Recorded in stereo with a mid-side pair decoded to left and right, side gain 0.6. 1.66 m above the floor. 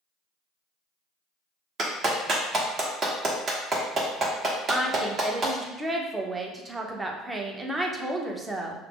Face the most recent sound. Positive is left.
turn(degrees=-15)